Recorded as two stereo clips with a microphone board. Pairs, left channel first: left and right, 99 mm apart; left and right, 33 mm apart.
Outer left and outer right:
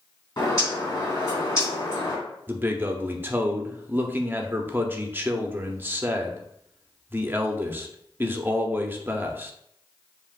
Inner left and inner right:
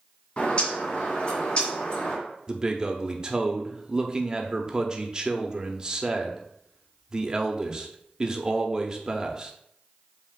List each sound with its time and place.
0.4 s a bird: 45° left (ahead or behind), 3 m
2.5 s a man speaking: 20° right (ahead or behind), 0.7 m